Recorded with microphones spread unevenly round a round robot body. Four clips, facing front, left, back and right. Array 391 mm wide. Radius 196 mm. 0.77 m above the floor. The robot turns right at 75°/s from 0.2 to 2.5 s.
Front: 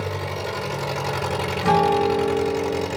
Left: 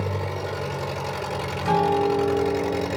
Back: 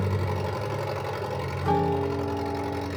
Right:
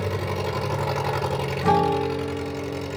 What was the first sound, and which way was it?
An engine running, 130° right.